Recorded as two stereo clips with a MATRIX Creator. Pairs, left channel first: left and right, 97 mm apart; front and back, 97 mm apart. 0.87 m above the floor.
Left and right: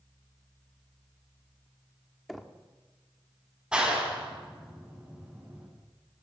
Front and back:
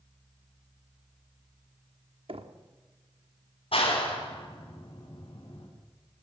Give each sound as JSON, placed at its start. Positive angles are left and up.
{"t": 2.3, "sound": "knocking", "azimuth_deg": 180, "distance_m": 1.3}
{"t": 3.7, "sound": "a clap", "azimuth_deg": -10, "distance_m": 5.0}